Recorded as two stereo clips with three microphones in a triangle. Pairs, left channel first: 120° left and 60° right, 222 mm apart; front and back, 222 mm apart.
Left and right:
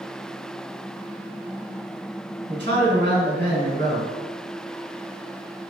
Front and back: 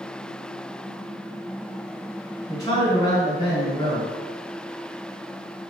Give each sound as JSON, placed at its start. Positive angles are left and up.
{"t": 2.5, "sound": "a man speaking", "azimuth_deg": -65, "distance_m": 1.8}